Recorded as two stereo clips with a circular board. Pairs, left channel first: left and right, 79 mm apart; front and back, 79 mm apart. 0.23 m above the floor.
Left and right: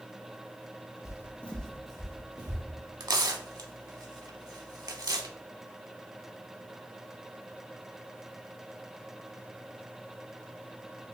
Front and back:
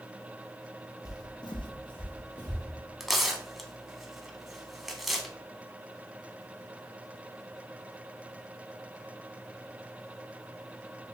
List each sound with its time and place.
1.1 s footsteps: 45° left, 0.6 m; by 2.6 s 15° right, 1.5 m
3.0 s tearing paper: 90° right, 0.6 m